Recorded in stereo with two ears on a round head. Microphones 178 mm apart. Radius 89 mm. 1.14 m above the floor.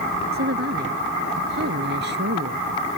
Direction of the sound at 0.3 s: 50° right (ahead or behind).